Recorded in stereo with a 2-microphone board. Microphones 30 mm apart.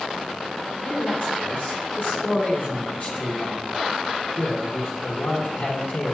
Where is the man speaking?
25° left (ahead or behind), 3 m.